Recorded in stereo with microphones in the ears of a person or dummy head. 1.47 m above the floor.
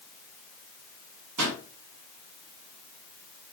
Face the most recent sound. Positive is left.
turn(degrees=-85)